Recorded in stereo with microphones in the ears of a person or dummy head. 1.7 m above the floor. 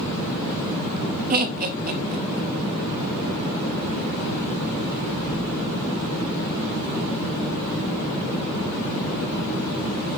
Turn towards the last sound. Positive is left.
turn(degrees=-40)  # may be behind; listen again after turning